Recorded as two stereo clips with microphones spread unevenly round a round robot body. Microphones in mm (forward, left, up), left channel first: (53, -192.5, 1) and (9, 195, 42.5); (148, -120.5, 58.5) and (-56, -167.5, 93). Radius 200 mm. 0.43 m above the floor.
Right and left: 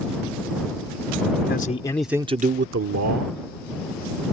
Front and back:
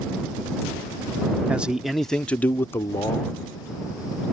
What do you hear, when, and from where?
1.5 s a man speaking: 70° right; by 3.4 s 75° left